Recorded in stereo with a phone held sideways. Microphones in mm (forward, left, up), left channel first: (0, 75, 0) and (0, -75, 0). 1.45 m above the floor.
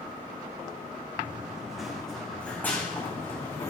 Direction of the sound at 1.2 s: 10° right (ahead or behind).